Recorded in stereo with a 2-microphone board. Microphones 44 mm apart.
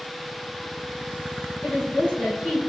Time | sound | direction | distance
1.6 | a woman speaking | 30° left (ahead or behind) | 1.7 m